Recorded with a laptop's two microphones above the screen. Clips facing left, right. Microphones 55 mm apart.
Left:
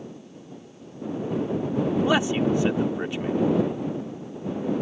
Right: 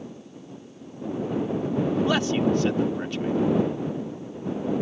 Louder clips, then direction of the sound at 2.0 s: Left 2 dB; 15° left (ahead or behind).